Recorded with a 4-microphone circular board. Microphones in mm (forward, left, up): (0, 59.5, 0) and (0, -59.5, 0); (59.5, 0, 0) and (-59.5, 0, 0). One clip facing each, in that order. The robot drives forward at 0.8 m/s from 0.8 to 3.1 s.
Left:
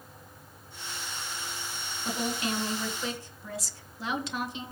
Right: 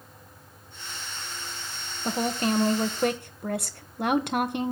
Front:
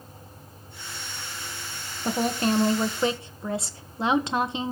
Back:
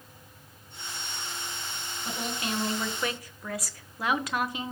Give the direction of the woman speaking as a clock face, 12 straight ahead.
1 o'clock.